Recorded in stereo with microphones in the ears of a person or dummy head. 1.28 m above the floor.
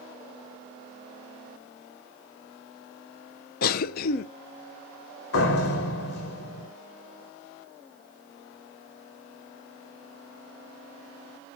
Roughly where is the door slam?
Left.